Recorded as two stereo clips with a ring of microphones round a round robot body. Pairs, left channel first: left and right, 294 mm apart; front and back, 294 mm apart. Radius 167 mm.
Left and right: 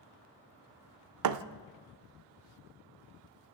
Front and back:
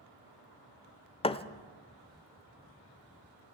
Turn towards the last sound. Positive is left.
turn(degrees=-70)